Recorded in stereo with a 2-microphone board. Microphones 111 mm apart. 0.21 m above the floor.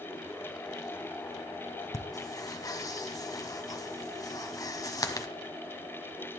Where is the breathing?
30° left (ahead or behind), 1.3 m.